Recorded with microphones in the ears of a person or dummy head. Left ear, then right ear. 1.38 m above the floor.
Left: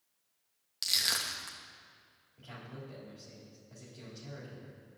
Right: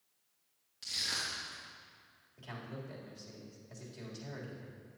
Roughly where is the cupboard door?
I don't hear a cupboard door.